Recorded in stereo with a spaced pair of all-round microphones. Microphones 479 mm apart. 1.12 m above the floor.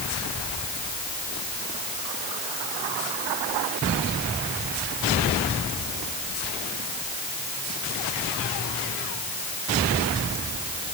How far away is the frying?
No frying in this recording.